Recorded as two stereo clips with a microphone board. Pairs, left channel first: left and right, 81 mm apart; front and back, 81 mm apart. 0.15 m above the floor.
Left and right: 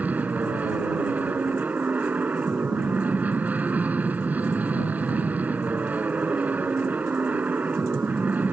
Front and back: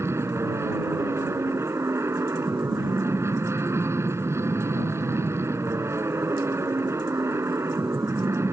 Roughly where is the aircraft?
Behind right.